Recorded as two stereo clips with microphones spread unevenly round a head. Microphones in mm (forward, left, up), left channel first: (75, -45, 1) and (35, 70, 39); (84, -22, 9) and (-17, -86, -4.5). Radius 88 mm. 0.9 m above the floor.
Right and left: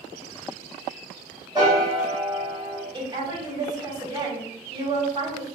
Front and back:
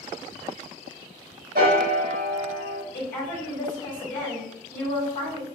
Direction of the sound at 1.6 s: 175° left.